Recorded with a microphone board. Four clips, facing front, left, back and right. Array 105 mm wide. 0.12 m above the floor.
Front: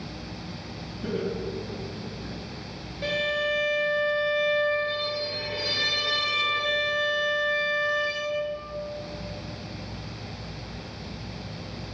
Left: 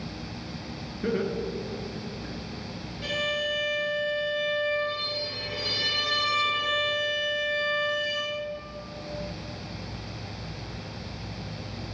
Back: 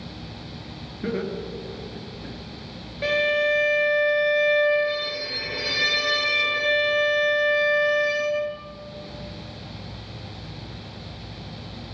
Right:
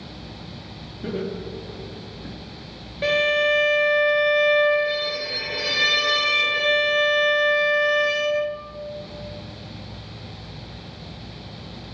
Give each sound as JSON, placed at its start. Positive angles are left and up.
{"t": 1.0, "sound": "laughter", "azimuth_deg": 145, "distance_m": 1.7}
{"t": 3.0, "sound": "a violin", "azimuth_deg": -120, "distance_m": 0.8}